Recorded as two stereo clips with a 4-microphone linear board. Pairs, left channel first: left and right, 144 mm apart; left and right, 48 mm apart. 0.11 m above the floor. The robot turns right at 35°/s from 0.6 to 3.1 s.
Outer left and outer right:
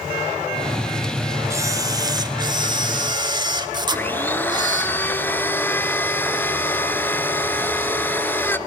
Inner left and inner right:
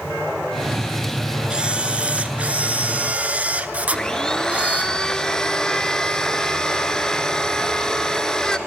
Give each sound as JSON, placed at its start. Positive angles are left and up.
{"t": 1.5, "sound": "a camera shutter", "azimuth_deg": -140, "distance_m": 0.7}
{"t": 3.9, "sound": "a blender", "side_deg": 15, "distance_m": 0.6}